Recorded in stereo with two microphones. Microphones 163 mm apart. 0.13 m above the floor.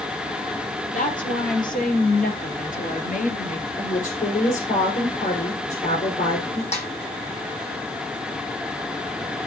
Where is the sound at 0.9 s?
55° left (ahead or behind), 4 m; by 3.7 s 50° left (ahead or behind), 2.5 m.